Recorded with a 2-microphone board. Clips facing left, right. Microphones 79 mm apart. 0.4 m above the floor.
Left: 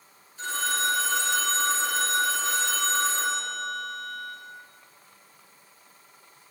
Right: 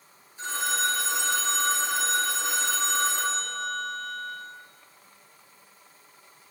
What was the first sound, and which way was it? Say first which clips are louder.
A phone ringing: even; 15° right (ahead or behind).